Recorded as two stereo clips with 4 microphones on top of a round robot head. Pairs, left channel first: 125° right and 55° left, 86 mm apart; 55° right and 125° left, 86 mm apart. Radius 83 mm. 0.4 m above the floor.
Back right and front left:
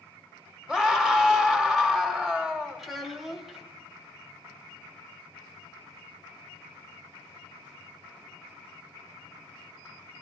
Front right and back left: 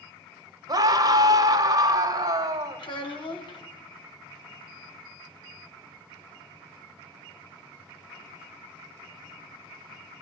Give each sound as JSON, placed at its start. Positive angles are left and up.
{"t": 0.7, "sound": "a scream", "azimuth_deg": 135, "distance_m": 1.9}
{"t": 2.8, "sound": "a child speaking", "azimuth_deg": -35, "distance_m": 2.5}